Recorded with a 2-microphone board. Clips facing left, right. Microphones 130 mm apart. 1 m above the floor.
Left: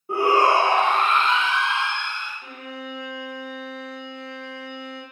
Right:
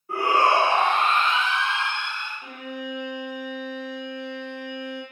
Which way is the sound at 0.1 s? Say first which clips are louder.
Left 2 dB; 25° left (ahead or behind).